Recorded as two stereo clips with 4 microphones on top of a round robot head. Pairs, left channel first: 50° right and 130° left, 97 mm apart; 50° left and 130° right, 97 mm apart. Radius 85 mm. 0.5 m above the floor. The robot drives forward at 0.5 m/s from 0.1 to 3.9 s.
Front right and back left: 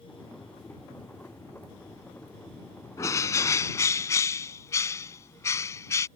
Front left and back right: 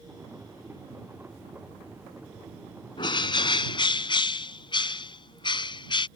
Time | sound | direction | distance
3.0 | a bird | 10° left | ?